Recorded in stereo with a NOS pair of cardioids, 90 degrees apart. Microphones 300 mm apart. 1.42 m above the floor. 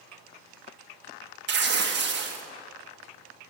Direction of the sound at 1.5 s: 35° right.